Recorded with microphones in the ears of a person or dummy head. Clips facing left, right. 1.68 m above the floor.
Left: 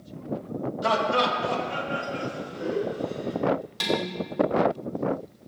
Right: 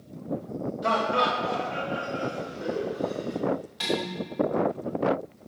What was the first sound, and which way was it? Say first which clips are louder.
Laughter: left 1 dB; 60° left (ahead or behind).